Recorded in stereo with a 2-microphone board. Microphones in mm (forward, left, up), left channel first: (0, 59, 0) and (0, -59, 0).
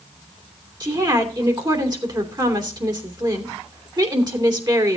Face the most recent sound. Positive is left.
turn(degrees=-35)  # may be behind; listen again after turning